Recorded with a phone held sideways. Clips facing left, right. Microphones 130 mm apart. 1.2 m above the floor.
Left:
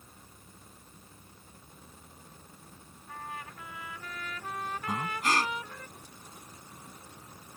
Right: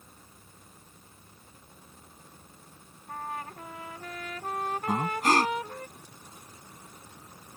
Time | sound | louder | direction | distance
3.1 | a trumpet | right 5 dB | 45° right (ahead or behind) | ?
4.9 | breathing | right 5 dB | 40° right (ahead or behind) | ?